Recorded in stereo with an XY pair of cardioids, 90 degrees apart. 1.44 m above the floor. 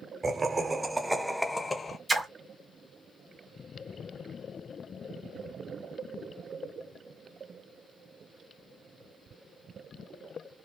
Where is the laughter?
35° right, 1.1 m; by 2.0 s 35° left, 0.8 m.